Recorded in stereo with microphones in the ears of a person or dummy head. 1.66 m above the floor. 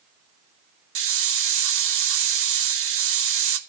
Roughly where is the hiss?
Right.